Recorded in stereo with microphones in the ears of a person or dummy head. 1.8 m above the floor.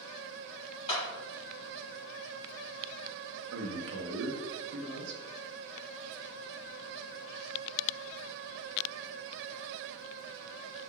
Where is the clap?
30° left (ahead or behind), 1.1 m.